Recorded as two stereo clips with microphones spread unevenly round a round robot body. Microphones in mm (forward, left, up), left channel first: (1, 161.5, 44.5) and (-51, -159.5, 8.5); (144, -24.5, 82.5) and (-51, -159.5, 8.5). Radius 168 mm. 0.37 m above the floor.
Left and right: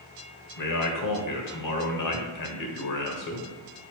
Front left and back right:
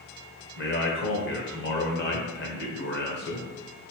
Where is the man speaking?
90° left, 1.6 m.